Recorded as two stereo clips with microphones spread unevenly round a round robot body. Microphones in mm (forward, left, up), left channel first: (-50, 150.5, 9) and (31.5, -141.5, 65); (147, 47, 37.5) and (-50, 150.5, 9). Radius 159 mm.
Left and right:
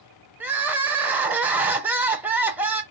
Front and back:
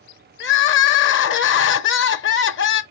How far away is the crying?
About 0.7 m.